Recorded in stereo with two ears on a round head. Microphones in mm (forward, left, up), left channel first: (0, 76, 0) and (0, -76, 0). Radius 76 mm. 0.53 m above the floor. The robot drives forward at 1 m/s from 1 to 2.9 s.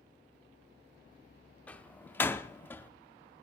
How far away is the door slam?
About 1.0 m.